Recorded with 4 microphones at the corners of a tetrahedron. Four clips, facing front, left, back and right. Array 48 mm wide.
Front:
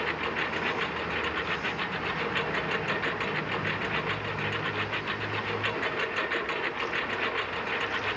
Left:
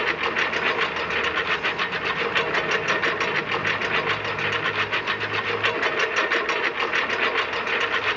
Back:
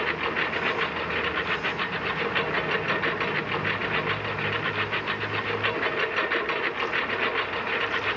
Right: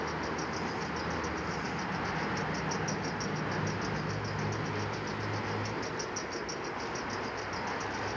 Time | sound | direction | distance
0.0 | a lawn mower | 105° left | ?